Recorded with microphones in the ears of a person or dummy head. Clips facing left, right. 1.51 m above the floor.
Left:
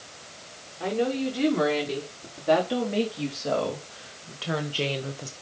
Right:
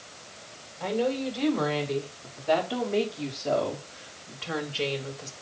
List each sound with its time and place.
0.8 s a woman speaking: 50° left (ahead or behind), 5.5 m; by 5.3 s 45° left (ahead or behind), 1.6 m